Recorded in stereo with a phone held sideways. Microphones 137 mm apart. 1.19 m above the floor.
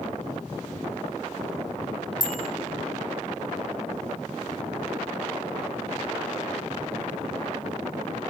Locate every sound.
2.2 s a bicycle bell: 35° right (ahead or behind), 2 m